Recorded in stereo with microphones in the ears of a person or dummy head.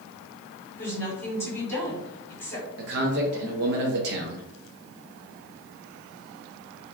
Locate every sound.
0.8 s a woman speaking: 15° left (ahead or behind), 1.1 m
2.8 s a man speaking: 50° right (ahead or behind), 0.6 m